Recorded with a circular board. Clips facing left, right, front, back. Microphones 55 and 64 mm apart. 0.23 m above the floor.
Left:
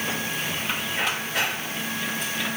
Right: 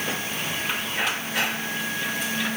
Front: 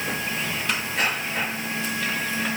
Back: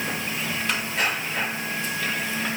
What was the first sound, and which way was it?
Only background noise.